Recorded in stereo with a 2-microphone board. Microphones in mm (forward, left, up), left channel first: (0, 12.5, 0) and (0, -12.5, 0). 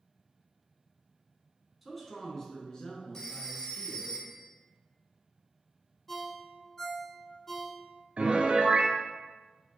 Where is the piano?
55° right (ahead or behind), 0.6 m.